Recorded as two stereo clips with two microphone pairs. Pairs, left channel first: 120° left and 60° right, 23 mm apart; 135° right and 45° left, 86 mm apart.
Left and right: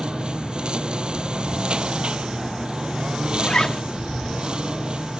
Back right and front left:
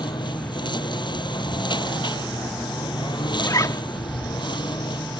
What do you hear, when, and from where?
0.0 s a lawn mower: 110° right
3.4 s a zipper: 175° left